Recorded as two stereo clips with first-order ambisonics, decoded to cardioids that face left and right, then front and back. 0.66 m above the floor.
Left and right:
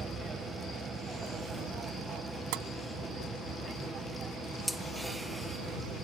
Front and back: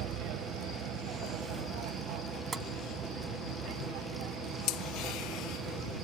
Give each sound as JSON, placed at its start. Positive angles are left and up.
{"t": 0.0, "sound": "an aircraft", "azimuth_deg": -160}
{"t": 2.5, "sound": "tapping", "azimuth_deg": -105}